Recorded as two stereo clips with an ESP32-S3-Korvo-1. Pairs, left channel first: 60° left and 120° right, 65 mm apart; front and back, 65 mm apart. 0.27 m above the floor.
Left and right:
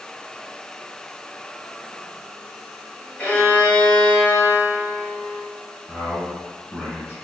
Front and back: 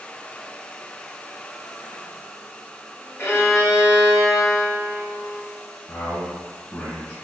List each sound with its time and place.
3.2 s a violin: 5° right, 1.0 m
5.9 s a man speaking: 60° right, 1.9 m